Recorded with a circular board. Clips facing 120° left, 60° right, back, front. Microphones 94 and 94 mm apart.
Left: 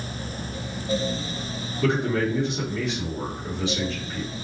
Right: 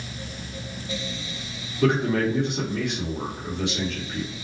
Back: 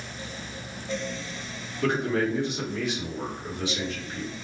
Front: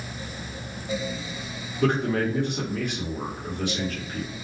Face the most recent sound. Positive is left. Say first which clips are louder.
# right 2 dB, front 2 dB
turn(degrees=-40)